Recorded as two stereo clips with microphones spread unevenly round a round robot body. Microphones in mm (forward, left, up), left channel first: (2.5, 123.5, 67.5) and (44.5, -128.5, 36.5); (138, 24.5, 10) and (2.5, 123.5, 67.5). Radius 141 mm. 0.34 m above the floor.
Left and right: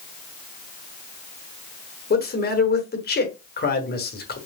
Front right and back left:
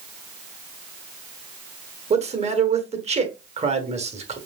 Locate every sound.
2.1 s a man speaking: 95° left, 1.3 m